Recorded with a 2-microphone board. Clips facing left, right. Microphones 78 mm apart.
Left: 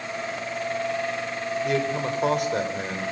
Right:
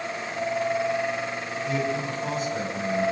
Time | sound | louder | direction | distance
1.6 | a man speaking | left 1 dB | 70° left (ahead or behind) | 5 m